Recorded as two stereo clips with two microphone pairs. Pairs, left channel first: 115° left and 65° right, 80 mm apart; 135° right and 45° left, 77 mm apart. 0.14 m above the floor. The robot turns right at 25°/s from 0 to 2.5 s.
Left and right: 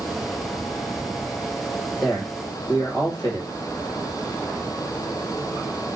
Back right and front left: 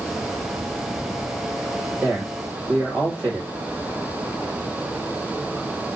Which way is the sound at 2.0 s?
95° left.